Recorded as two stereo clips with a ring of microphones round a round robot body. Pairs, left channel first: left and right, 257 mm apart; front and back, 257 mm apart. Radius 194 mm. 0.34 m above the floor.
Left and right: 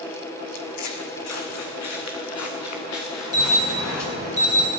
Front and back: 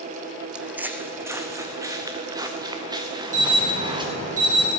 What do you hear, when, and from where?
0.6 s footsteps: 95° left, 1.2 m; by 4.0 s 105° left, 3.5 m
3.3 s an alarm: 120° left, 7 m